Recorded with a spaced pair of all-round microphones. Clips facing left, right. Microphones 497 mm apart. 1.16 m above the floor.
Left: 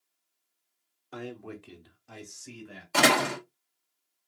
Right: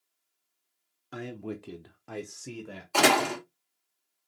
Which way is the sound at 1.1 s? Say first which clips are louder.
Right 3 dB; 35° right (ahead or behind).